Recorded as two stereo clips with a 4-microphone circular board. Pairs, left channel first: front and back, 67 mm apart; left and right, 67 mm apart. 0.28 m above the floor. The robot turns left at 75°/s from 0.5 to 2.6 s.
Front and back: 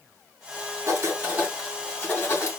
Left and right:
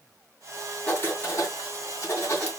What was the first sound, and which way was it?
Writing, 160° left.